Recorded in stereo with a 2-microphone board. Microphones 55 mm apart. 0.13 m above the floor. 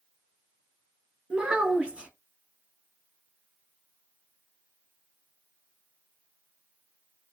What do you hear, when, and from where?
1.3 s a child speaking: 20° right (ahead or behind), 0.8 m